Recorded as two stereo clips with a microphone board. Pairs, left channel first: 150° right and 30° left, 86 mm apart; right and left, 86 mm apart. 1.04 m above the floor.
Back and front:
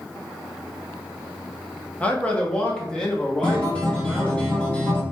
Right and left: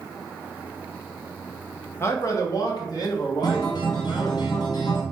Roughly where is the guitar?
Right.